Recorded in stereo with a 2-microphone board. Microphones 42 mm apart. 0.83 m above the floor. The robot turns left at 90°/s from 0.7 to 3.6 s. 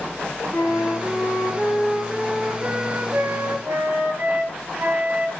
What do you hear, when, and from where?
0.5 s a flute: 125° left, 8.5 m; by 5.3 s 135° right, 8.5 m